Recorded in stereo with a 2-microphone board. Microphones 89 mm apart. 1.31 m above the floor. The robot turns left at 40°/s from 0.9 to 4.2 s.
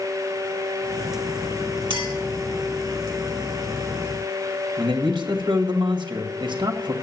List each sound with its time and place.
1.9 s a clink: 70° right (ahead or behind), 2.5 m; by 2.1 s 80° right, 2.5 m
4.8 s a man speaking: 55° right (ahead or behind), 1.6 m